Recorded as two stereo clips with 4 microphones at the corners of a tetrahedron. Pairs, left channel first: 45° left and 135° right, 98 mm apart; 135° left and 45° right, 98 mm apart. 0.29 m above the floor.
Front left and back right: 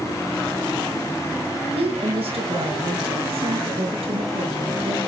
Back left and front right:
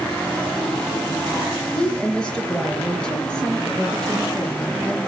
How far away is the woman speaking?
About 5 m.